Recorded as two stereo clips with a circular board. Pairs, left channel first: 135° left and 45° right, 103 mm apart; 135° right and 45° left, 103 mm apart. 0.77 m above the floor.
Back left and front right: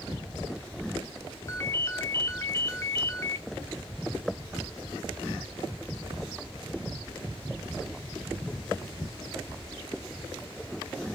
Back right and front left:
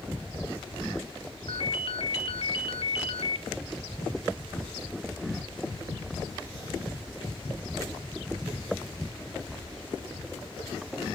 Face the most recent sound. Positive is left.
turn(degrees=-165)